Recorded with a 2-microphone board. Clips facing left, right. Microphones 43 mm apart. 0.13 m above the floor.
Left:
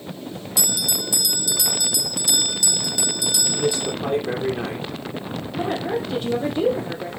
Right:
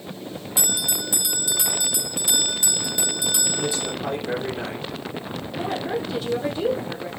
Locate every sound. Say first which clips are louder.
0.6 s a bell: left 1 dB; 25° right (ahead or behind), 0.8 m
3.5 s a man speaking: left 4 dB; 30° left (ahead or behind), 4.5 m
5.6 s a woman speaking: left 2 dB; 40° left (ahead or behind), 5 m